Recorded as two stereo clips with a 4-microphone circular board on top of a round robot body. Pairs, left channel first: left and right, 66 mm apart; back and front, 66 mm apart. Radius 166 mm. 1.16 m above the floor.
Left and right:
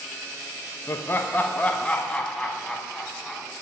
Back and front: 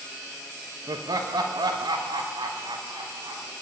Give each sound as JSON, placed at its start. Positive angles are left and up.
{"t": 0.9, "sound": "laughter", "azimuth_deg": 35, "distance_m": 1.3}